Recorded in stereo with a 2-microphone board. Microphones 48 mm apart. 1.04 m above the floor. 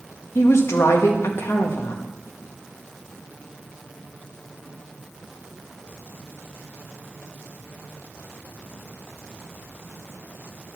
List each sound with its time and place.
0.3 s a woman speaking: 65° left (ahead or behind), 1.2 m